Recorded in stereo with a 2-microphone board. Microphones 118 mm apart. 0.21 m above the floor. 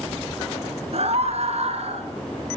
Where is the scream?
60° right (ahead or behind), 3 m.